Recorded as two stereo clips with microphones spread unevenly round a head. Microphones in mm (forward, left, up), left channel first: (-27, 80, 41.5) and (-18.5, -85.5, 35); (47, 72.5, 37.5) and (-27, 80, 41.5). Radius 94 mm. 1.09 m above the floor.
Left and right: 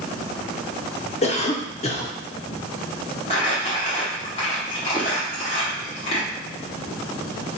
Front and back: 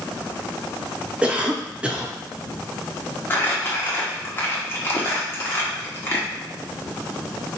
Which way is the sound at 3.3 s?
45° left.